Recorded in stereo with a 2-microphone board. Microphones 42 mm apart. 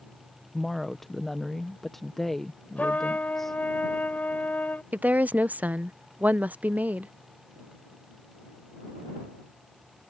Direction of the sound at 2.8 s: 45° left (ahead or behind).